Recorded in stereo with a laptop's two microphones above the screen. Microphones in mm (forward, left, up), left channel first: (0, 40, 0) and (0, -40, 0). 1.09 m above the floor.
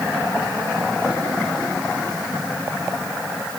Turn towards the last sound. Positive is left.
No sound to turn to.